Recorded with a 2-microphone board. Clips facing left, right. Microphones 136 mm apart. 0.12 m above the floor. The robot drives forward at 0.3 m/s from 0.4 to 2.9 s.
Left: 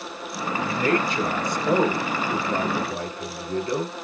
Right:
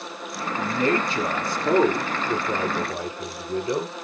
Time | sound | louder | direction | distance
0.6 | a man speaking | even | 35° right (ahead or behind) | 1.5 m